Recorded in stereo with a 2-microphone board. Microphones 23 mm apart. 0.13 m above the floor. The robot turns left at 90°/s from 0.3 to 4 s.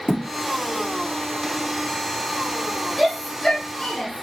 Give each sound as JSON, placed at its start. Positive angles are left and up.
{"t": 0.1, "sound": "a thud", "side_deg": 65, "distance_m": 1.4}
{"t": 3.0, "sound": "a shout", "side_deg": -10, "distance_m": 1.5}